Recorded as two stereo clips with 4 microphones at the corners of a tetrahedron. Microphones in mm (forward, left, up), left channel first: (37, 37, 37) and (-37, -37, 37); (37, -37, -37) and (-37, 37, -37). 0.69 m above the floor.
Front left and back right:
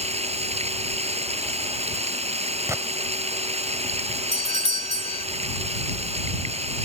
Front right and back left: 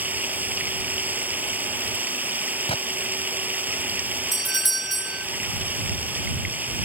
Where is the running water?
150° right.